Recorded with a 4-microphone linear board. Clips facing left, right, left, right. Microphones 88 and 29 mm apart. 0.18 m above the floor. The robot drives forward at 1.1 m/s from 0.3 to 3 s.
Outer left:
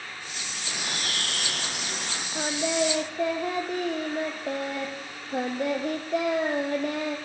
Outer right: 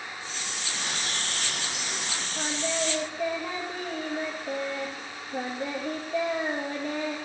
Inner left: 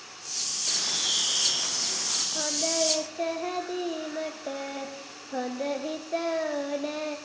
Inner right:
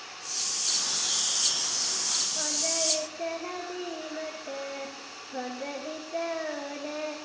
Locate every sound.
0.7 s a bird: 70° left (ahead or behind), 3.5 m; by 2.2 s 50° left (ahead or behind), 4.5 m
2.4 s singing: 60° left (ahead or behind), 4 m; by 7.2 s 70° left (ahead or behind), 3.5 m